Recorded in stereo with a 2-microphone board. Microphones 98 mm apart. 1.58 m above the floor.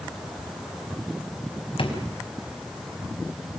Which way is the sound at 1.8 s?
65° left (ahead or behind).